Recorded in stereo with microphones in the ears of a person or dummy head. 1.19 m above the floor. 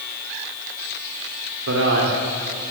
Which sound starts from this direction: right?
A man speaking, at 1.7 s.